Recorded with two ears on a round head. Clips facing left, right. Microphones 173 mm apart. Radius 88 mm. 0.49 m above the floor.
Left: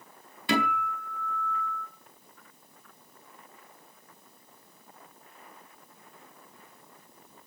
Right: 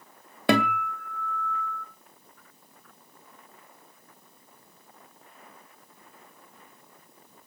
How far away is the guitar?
About 2.5 m.